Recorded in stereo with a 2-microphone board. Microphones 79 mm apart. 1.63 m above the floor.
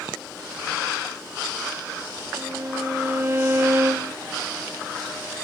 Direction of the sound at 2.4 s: 30° right (ahead or behind).